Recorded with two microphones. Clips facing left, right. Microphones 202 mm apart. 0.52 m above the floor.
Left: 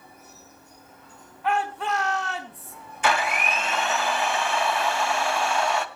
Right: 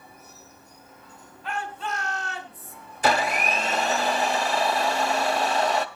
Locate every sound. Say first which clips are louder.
1.4 s a shout: left 6 dB; 65° left (ahead or behind), 4.5 m
3.0 s a blender: right 2 dB; 35° right (ahead or behind), 1.4 m